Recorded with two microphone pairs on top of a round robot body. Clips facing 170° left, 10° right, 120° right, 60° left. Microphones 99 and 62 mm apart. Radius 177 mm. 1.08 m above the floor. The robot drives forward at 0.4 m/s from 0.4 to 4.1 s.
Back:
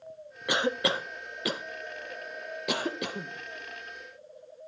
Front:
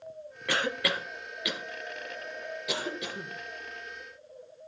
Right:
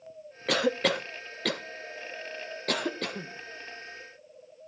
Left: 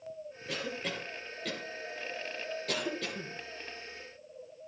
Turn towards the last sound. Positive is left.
turn(degrees=-160)